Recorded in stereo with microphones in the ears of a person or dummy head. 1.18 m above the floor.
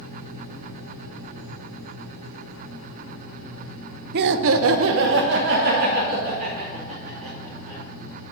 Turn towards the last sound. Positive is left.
turn(degrees=-40)  # may be behind; listen again after turning